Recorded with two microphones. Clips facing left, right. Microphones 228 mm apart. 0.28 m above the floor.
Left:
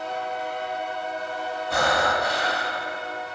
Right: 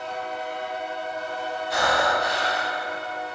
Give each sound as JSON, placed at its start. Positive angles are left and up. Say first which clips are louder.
{"t": 1.7, "sound": "breathing", "louder": "even", "side_deg": 60, "distance_m": 0.8}